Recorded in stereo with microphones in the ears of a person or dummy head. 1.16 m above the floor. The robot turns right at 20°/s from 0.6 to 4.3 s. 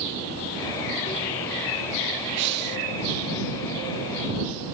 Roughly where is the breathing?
Right.